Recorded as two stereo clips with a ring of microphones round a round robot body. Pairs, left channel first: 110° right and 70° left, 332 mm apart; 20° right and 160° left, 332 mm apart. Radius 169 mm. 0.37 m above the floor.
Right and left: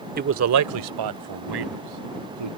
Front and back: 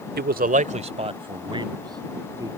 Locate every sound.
0.2 s a man speaking: 115° left; by 2.5 s 75° left